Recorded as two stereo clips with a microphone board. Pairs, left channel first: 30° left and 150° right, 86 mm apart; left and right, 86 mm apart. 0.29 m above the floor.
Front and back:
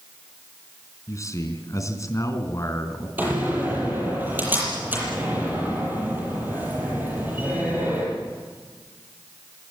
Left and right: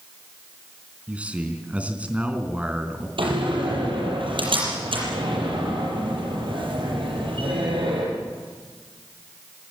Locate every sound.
1.1 s a man speaking: 15° right, 3.5 m
3.2 s a door slam: 80° right, 7.5 m